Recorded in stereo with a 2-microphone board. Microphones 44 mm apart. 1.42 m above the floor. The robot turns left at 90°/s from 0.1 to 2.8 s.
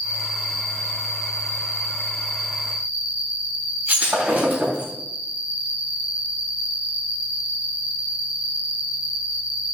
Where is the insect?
150° right, 1.5 m; by 9.8 s 30° right, 1.5 m.